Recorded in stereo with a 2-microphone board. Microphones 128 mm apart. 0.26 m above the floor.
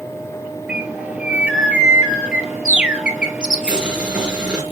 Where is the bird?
5° right (ahead or behind), 1.4 m.